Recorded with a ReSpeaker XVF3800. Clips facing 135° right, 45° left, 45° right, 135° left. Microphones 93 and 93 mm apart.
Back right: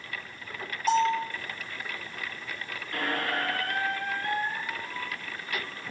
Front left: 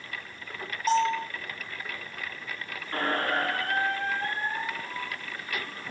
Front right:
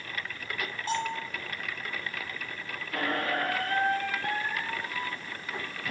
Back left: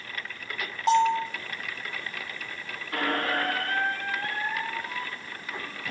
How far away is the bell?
About 8 m.